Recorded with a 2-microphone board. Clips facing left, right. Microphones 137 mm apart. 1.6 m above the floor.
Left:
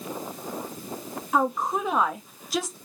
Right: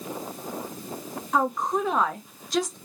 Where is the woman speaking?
5° left (ahead or behind), 0.6 m.